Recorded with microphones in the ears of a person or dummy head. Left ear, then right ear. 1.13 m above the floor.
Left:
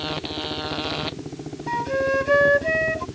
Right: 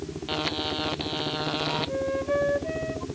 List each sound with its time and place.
1.7 s a flute: 60° left (ahead or behind)